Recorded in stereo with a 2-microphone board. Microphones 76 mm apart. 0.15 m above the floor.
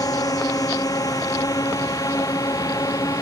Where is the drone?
50° left (ahead or behind).